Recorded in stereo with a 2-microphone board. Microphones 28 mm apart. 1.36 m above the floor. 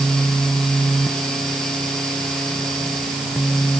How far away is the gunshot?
No gunshot in this recording.